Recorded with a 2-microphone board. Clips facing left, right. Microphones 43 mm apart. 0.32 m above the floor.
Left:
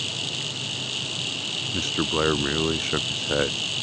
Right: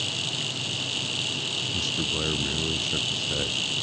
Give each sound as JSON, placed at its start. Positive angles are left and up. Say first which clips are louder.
{"t": 1.7, "sound": "a man speaking", "louder": "left 6 dB", "side_deg": 45}